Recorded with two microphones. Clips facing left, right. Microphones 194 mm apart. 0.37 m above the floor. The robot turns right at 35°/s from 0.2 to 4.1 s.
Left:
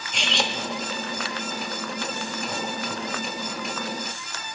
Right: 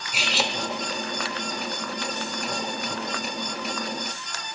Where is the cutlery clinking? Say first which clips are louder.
Even; 5° right (ahead or behind), 0.6 m.